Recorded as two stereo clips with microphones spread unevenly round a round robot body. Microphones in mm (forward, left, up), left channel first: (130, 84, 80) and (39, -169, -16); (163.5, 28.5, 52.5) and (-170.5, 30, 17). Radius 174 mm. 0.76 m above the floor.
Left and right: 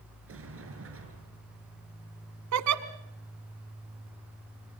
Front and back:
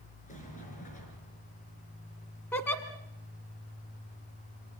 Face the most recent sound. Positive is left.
turn(degrees=-80)